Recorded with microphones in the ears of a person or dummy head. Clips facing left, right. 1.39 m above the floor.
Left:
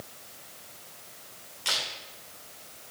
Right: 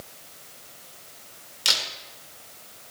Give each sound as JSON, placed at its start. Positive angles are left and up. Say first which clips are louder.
{"t": 1.6, "sound": "a camera shutter", "louder": "right 2 dB", "side_deg": -55, "distance_m": 2.5}